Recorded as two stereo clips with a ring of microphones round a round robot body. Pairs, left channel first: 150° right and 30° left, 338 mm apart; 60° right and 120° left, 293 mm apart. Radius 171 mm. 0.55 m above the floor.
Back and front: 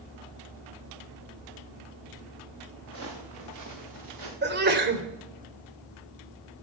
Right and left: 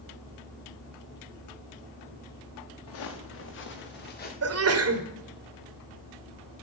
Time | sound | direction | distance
2.9 | footsteps | 20° right | 4 m
4.4 | a sneeze | 90° left | 2.5 m